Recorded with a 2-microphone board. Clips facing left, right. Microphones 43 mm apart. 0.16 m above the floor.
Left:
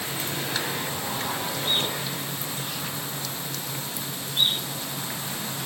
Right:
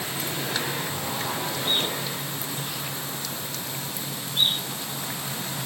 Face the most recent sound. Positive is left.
No sound to turn to.